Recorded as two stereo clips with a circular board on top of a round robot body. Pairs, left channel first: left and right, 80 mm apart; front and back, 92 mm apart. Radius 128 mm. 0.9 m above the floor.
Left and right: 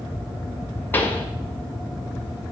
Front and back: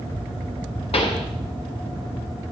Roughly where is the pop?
Ahead left.